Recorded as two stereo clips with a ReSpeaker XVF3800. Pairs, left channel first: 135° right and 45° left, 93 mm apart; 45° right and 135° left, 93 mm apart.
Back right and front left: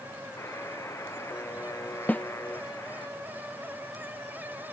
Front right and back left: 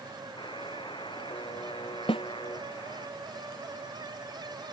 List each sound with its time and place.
0.4 s a buzzer: 75° right
2.1 s a snare drum: 60° right